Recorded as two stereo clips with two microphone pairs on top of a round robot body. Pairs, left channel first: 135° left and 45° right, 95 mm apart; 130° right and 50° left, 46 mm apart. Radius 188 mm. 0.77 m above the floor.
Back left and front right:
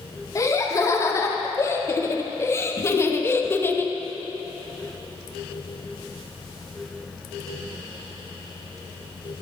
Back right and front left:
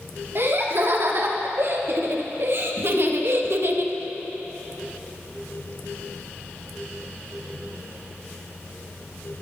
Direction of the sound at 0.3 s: 80° left.